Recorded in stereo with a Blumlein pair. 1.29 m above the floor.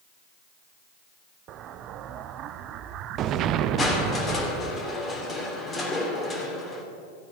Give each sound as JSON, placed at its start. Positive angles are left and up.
{"t": 1.5, "sound": "an explosion", "azimuth_deg": -35, "distance_m": 0.5}
{"t": 3.8, "sound": "crushing", "azimuth_deg": 20, "distance_m": 2.5}